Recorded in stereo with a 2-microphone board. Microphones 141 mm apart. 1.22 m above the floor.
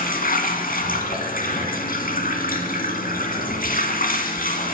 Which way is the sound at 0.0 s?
85° left.